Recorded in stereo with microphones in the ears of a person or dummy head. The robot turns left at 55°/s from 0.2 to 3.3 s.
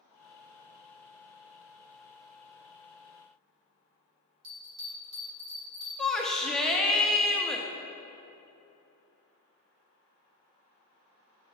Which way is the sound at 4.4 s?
60° right (ahead or behind).